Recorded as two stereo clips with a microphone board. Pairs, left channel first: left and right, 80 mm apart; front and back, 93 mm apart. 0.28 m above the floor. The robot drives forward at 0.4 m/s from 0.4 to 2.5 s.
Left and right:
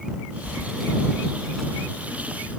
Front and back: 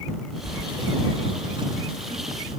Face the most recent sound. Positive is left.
turn(degrees=180)